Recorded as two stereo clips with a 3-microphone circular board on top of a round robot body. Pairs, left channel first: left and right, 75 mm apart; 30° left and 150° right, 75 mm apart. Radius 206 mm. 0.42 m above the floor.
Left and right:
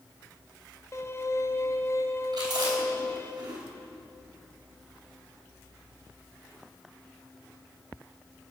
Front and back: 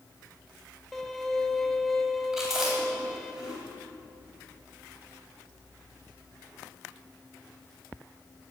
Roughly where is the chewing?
Ahead right.